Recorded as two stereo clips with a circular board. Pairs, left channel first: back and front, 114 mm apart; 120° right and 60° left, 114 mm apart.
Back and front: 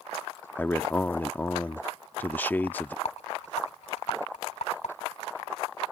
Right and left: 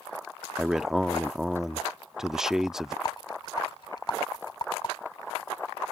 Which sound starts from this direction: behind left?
A man speaking, at 0.6 s.